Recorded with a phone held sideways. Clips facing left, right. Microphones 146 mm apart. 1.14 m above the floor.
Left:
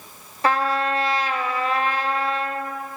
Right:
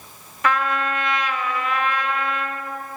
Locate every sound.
0.4 s a trumpet: 35° left (ahead or behind), 0.6 m